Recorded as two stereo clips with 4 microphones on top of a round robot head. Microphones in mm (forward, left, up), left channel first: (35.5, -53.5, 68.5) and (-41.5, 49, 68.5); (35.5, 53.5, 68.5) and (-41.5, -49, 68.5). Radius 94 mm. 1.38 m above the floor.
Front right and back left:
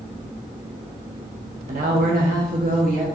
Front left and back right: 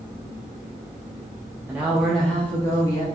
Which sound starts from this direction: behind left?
A woman speaking, at 1.7 s.